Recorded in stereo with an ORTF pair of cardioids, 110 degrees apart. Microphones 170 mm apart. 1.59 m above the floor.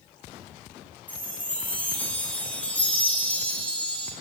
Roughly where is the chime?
Ahead.